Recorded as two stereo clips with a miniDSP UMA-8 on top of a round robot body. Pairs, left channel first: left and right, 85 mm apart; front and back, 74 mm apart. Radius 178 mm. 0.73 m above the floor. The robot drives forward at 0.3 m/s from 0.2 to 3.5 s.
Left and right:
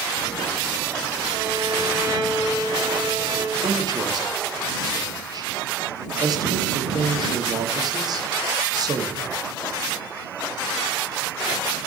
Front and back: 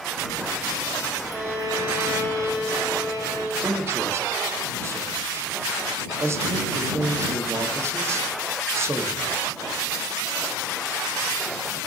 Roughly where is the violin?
Behind right.